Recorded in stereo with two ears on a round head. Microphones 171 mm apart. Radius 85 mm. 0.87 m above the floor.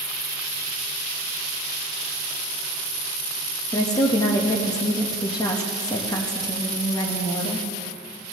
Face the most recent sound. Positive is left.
turn(degrees=20)  # may be behind; listen again after turning